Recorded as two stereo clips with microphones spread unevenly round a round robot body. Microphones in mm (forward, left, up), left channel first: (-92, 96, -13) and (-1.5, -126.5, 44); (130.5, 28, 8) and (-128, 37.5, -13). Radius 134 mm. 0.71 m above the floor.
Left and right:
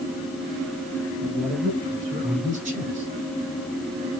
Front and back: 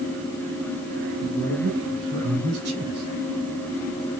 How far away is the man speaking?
About 6.5 m.